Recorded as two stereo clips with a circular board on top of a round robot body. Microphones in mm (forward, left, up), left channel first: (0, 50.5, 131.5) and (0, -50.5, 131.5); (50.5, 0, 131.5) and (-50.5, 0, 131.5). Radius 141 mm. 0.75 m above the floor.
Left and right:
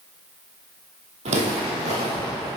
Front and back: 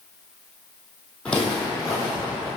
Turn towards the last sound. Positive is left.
turn(degrees=-90)